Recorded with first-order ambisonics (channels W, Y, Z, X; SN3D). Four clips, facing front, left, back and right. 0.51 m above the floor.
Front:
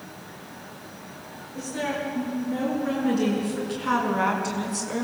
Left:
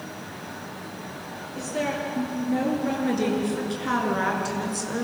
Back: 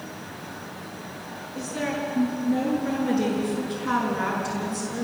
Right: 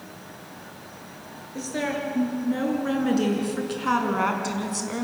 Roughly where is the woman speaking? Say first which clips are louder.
Even, even; right.